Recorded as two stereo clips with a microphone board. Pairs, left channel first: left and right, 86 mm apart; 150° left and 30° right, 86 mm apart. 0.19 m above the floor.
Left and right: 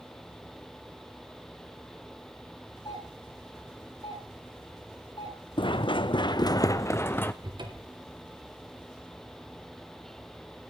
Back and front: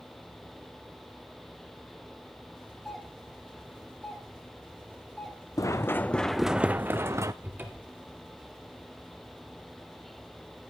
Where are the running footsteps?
100° left, 0.8 m; by 7.3 s 20° left, 1.0 m.